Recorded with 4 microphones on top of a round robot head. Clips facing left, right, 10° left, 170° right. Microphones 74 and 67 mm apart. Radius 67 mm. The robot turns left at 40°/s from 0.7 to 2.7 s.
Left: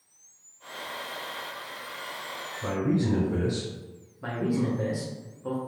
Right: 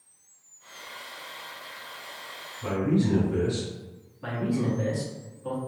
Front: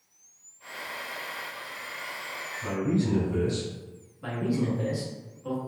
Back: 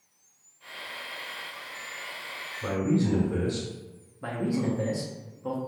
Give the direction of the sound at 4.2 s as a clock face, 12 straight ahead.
7 o'clock.